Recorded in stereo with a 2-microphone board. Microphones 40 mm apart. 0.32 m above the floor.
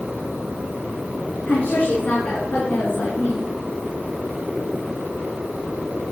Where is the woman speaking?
65° left (ahead or behind), 3 m; by 3.5 s 60° left (ahead or behind), 4 m.